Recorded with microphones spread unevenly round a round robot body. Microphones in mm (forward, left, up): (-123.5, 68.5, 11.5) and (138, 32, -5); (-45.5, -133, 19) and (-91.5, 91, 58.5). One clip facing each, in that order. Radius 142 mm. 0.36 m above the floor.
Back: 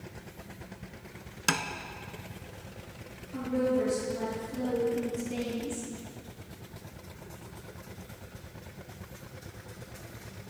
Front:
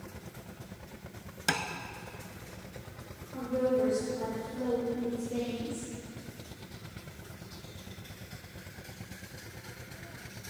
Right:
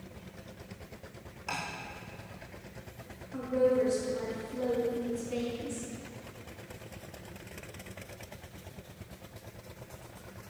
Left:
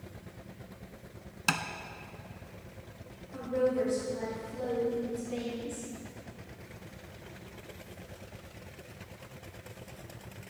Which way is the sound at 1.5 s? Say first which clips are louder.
Back 2 dB, left 6 dB; 95° left.